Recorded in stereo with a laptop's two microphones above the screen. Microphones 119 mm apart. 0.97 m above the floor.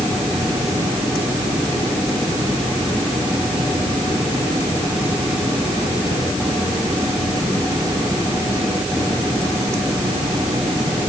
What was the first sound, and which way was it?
Only background noise.